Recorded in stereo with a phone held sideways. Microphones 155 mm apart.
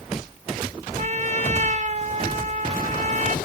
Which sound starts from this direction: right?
A trumpet, at 1.0 s.